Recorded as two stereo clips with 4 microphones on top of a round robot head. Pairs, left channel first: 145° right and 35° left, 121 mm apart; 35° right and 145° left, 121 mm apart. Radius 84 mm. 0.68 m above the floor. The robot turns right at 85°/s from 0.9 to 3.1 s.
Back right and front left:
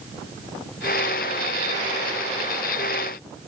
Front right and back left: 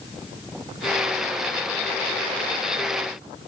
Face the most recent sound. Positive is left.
No sound to turn to.